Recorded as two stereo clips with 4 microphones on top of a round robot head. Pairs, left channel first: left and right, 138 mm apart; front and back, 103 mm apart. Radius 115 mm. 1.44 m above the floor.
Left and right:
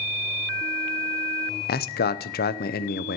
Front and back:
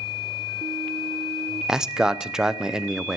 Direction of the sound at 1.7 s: 95° left.